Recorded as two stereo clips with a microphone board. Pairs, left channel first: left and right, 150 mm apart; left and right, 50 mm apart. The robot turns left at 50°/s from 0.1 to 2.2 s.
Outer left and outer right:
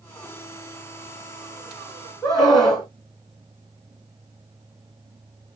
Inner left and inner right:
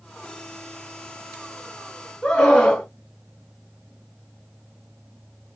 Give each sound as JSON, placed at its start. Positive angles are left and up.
{"t": 2.2, "sound": "a scream", "side_deg": 25, "distance_m": 2.0}